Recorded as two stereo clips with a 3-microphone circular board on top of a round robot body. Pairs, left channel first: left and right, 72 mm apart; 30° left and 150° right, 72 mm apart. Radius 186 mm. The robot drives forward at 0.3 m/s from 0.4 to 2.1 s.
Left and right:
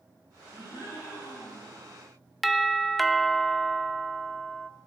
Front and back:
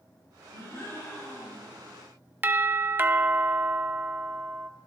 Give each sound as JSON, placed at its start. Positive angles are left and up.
{"t": 0.5, "sound": "a gasp", "azimuth_deg": 70, "distance_m": 5.5}
{"t": 2.4, "sound": "a doorbell", "azimuth_deg": 180, "distance_m": 0.7}